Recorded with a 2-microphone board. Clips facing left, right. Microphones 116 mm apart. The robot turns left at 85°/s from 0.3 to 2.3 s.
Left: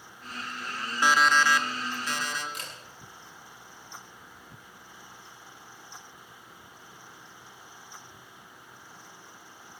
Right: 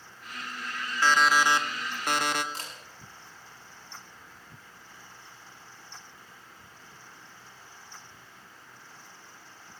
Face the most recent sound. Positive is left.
turn(degrees=-35)  # may be behind; listen again after turning